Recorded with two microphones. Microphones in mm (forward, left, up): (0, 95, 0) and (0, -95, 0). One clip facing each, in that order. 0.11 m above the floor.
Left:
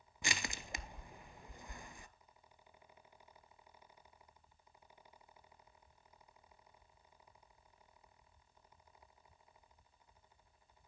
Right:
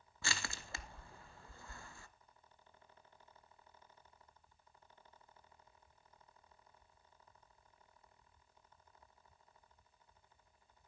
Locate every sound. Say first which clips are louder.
0.2 s crushing: left 2 dB; 15° left (ahead or behind), 0.7 m